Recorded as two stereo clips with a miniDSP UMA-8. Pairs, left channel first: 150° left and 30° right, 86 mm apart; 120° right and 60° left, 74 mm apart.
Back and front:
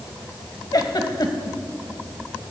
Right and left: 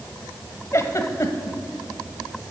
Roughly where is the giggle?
Behind.